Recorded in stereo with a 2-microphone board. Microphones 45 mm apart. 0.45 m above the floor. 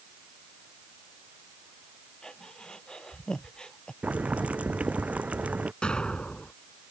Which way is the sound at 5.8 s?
20° left (ahead or behind).